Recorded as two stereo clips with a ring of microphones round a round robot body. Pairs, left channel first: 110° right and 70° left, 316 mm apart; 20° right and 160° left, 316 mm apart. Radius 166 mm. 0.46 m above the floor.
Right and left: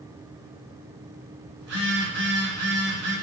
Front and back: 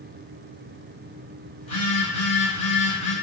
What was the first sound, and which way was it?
A phone buzzing, 40° left.